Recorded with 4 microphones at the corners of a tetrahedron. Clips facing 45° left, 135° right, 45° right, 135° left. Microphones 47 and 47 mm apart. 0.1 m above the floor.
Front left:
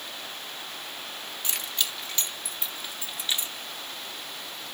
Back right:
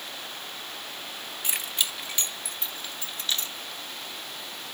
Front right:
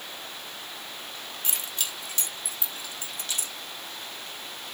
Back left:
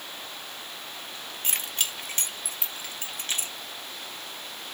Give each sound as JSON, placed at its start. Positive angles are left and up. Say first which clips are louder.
{"t": 1.4, "sound": "keys jangling", "louder": "back right 1 dB, back left 4 dB", "azimuth_deg": 160, "distance_m": 1.6}